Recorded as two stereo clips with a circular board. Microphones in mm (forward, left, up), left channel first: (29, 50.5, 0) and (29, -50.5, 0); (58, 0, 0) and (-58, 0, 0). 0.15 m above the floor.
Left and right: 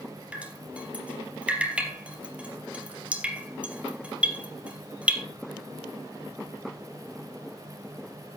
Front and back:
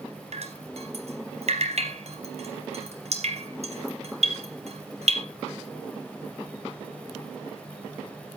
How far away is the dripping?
About 3 m.